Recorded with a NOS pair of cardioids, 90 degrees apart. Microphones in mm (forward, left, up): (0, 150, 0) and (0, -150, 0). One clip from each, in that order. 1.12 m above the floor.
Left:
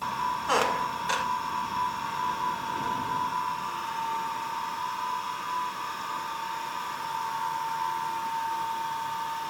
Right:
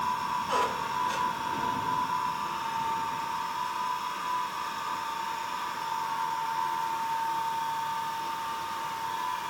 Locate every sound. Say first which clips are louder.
0.5 s a squeak: left 4 dB; 65° left, 0.7 m